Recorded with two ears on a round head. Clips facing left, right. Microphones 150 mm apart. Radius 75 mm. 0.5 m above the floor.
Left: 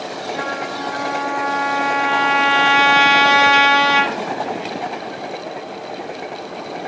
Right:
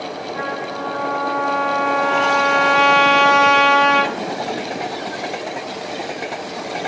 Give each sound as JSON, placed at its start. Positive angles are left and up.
{"t": 0.3, "sound": "a trumpet", "side_deg": 65, "distance_m": 4.0}